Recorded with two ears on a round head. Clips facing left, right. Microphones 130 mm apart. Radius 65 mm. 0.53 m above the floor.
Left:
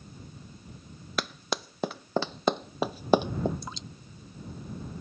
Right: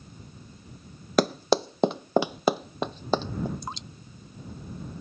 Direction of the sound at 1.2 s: 35° right (ahead or behind).